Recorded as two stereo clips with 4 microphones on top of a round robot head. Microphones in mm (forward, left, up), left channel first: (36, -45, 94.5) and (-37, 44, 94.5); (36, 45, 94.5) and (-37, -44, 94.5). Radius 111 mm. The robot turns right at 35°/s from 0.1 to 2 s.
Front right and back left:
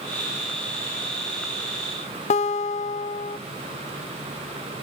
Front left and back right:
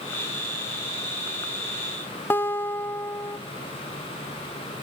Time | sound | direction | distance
2.3 | a guitar | 25° right | 0.6 m